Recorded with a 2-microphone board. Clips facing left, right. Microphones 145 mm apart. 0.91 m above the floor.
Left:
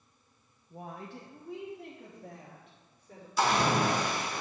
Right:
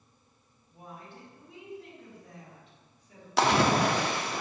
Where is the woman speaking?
60° left (ahead or behind), 0.6 m; by 3.3 s 55° left (ahead or behind), 2 m.